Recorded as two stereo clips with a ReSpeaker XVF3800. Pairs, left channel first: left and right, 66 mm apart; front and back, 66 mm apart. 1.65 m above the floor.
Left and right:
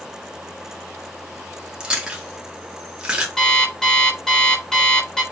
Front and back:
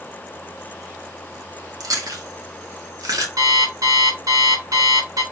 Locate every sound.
1.8 s chewing: 165° right, 2.5 m
3.4 s an alarm clock: 170° left, 3.5 m